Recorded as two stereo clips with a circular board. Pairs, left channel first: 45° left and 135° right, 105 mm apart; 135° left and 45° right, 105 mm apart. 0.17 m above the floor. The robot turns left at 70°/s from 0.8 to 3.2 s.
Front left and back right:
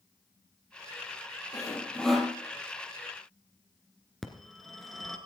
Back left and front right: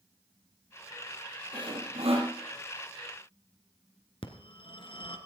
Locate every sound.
1.5 s sawing: 5° right, 3 m; by 2.3 s 60° right, 3 m
4.2 s a phone ringing: 130° left, 1.8 m